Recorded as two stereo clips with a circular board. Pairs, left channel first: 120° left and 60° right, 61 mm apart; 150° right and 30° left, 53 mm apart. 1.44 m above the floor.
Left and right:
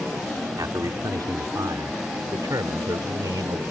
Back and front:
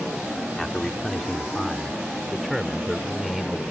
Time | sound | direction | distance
0.6 | a man speaking | 70° right | ?